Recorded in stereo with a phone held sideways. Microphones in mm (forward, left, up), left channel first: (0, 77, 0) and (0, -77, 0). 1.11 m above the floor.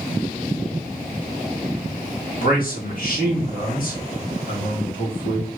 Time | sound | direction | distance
2.4 | a man speaking | 70° left (ahead or behind) | 1.9 m